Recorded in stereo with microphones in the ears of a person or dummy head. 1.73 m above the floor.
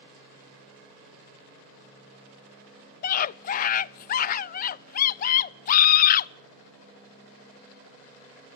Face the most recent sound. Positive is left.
turn(degrees=50)  # may be behind; listen again after turning